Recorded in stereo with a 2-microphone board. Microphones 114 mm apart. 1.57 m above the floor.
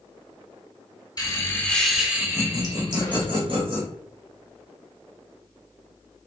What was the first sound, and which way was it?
Laughter, 35° left (ahead or behind).